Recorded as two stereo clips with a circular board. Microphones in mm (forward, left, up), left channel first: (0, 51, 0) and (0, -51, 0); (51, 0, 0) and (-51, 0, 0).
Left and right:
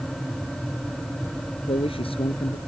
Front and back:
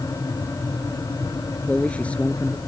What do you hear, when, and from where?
1.7 s a man speaking: 75° left